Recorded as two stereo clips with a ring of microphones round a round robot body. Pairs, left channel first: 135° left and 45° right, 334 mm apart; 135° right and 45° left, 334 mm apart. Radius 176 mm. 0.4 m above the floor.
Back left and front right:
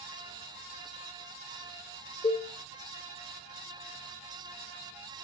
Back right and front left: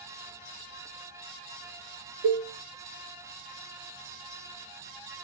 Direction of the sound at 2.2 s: 60° left.